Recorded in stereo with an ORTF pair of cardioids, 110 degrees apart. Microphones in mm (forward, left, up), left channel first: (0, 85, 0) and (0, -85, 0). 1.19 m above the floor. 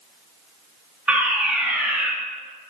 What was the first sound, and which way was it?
A fire alarm, 5° right.